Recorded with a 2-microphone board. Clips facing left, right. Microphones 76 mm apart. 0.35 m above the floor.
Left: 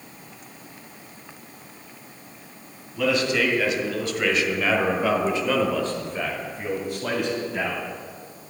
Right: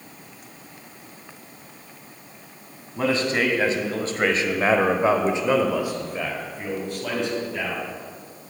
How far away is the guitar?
No guitar in this recording.